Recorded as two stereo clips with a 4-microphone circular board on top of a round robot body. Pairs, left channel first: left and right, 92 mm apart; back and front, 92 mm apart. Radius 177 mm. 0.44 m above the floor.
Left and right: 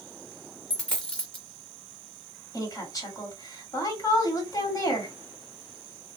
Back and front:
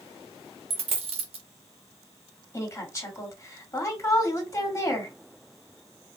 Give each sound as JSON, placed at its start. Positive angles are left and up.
{"t": 0.7, "sound": "a dropped coin", "azimuth_deg": 10, "distance_m": 0.8}
{"t": 2.5, "sound": "a woman speaking", "azimuth_deg": 125, "distance_m": 2.0}